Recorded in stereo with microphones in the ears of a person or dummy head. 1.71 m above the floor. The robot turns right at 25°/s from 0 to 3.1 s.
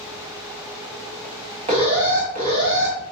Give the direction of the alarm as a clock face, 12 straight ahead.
5 o'clock.